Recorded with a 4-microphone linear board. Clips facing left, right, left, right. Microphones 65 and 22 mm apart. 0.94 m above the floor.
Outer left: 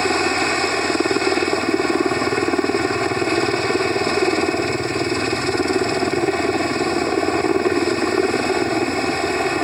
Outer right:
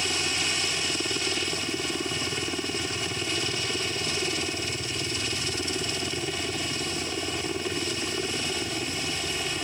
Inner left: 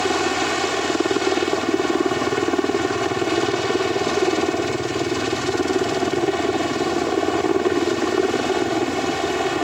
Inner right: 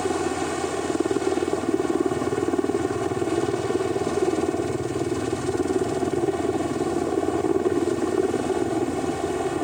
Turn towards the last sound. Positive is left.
turn(degrees=55)  # may be behind; listen again after turning